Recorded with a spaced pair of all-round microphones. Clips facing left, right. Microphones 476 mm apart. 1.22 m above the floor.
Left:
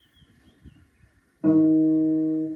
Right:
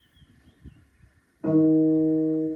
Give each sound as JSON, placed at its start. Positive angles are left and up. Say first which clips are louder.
{"t": 1.4, "sound": "a guitar", "louder": "left 1 dB", "side_deg": 50, "distance_m": 2.0}